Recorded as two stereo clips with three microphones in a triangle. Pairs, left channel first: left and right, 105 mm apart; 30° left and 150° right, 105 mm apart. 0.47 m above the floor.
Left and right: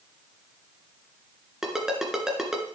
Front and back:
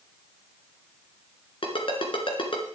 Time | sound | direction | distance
1.6 | a ringtone | 5° right | 2.5 m